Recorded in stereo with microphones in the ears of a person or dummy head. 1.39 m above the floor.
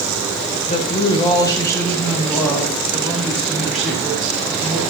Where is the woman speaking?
35° left (ahead or behind), 1.0 m; by 4.8 s 5° right (ahead or behind), 3 m.